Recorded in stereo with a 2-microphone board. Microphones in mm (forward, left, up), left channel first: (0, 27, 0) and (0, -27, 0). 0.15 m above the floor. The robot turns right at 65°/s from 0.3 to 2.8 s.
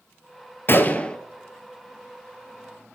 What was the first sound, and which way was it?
A gunshot, 135° left.